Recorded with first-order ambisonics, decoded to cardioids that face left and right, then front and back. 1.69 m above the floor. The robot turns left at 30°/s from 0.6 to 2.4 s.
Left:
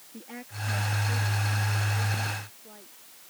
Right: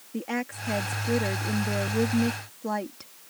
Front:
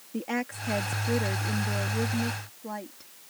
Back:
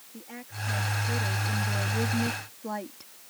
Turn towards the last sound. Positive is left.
turn(degrees=-95)